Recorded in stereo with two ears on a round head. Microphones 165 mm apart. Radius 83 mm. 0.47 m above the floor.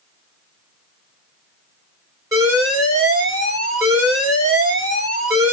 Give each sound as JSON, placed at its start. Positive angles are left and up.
{"t": 2.3, "sound": "an alarm", "side_deg": -20, "distance_m": 3.0}